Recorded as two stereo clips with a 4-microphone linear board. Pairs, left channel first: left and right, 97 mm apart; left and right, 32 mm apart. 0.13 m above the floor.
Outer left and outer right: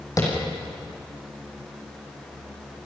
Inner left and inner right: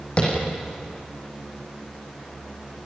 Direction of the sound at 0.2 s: 35° left (ahead or behind).